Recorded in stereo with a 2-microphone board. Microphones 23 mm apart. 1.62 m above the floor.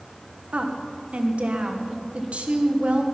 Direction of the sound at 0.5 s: 80° right.